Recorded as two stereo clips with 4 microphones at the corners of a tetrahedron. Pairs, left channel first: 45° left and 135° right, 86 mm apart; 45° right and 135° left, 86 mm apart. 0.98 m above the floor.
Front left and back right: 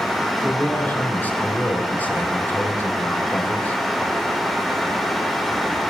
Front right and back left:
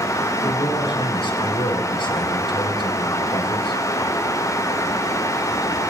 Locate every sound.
0.4 s a man speaking: 25° right, 4.5 m